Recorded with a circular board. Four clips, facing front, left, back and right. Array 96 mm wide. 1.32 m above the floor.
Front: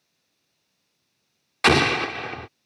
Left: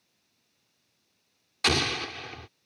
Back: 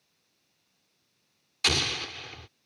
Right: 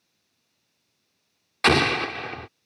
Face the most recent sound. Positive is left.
turn(degrees=-30)